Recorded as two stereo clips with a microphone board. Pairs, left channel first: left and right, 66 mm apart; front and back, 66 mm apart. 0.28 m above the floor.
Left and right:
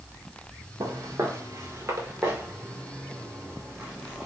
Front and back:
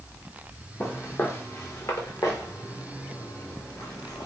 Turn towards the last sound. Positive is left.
turn(degrees=-15)